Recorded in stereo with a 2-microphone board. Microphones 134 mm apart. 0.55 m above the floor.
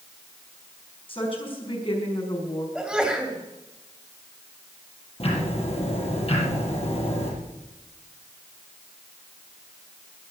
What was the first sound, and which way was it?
A woman speaking, 40° left (ahead or behind).